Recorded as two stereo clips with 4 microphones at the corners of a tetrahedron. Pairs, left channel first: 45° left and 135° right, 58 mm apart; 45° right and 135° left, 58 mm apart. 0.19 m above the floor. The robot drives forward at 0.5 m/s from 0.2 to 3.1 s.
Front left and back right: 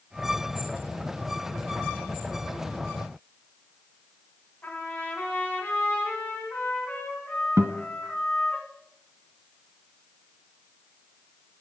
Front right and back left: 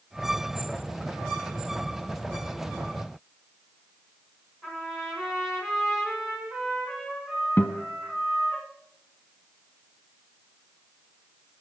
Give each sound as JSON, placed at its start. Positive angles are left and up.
{"t": 4.6, "sound": "a trumpet", "azimuth_deg": 55, "distance_m": 1.6}
{"t": 7.6, "sound": "a guitar", "azimuth_deg": -105, "distance_m": 0.6}